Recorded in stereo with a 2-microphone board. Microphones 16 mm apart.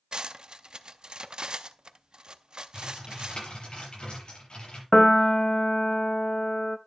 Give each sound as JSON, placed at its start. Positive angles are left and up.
{"t": 0.1, "sound": "cutlery clinking", "side_deg": -55, "distance_m": 0.5}
{"t": 2.7, "sound": "typing on a keyboard", "side_deg": 75, "distance_m": 7.0}
{"t": 4.9, "sound": "a piano", "side_deg": 35, "distance_m": 0.6}